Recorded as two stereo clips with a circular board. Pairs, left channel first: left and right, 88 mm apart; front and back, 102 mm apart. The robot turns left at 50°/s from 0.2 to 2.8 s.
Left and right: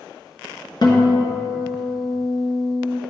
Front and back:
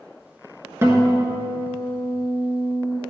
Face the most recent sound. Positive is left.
turn(degrees=20)